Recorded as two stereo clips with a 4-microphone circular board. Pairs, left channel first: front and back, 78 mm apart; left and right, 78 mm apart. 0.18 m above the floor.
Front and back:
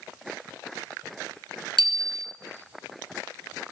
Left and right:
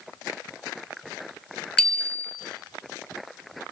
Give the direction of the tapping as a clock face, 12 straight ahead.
No tapping in this recording.